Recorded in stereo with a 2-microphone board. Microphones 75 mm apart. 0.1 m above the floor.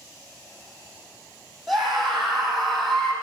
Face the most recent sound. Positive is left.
turn(degrees=5)  # may be behind; listen again after turning